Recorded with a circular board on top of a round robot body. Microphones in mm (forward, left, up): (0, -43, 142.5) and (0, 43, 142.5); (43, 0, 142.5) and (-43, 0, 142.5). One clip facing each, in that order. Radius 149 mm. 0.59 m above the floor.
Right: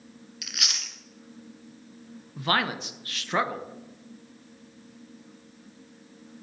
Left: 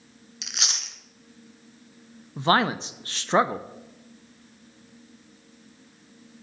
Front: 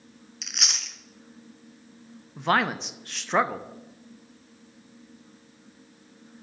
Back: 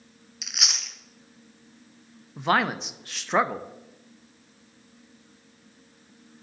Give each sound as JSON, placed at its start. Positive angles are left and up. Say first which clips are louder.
{"t": 0.4, "sound": "chewing", "louder": "left 2 dB, back 1 dB", "azimuth_deg": 95, "distance_m": 1.1}
{"t": 2.4, "sound": "a man speaking", "louder": "left 5 dB, even", "azimuth_deg": 95, "distance_m": 0.7}